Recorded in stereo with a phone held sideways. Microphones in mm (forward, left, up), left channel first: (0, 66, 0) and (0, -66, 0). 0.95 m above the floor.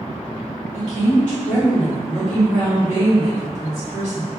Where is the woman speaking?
55° left (ahead or behind), 0.9 m.